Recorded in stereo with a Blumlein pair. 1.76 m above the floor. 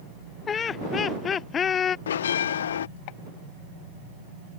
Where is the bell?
65° left.